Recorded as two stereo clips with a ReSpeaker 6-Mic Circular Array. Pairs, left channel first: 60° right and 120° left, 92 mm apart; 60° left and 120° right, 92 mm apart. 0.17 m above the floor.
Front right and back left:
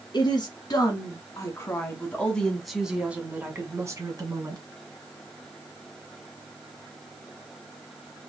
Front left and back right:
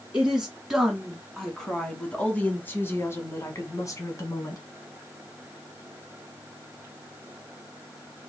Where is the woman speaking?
40° right, 1.8 m; by 4.6 s 95° left, 1.6 m.